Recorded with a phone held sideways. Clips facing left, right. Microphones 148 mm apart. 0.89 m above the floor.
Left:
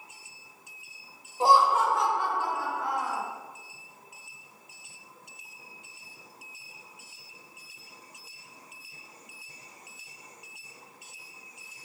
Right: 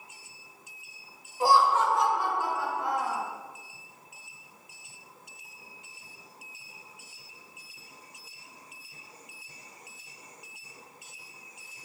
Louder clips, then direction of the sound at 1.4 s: Left 1 dB; 25° left (ahead or behind).